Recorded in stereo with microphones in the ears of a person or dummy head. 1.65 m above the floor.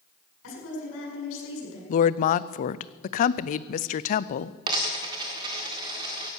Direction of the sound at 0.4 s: 80° left.